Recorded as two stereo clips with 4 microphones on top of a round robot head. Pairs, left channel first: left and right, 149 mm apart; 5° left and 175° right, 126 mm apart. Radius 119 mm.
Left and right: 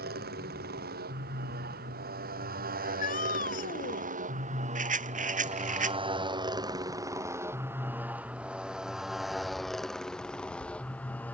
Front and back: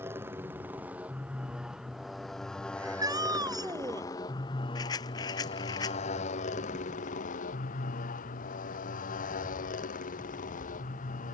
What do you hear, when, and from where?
0.0 s a motorcycle: 95° right; by 11.4 s 10° left
2.8 s a shout: 130° left
4.8 s a rattle: 60° right